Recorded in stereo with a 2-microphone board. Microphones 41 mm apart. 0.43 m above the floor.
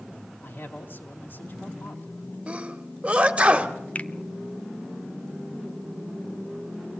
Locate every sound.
0.4 s a man speaking: 60° left (ahead or behind), 3.5 m
2.5 s a sneeze: 30° right (ahead or behind), 1.8 m
4.0 s a finger snap: 35° left (ahead or behind), 0.6 m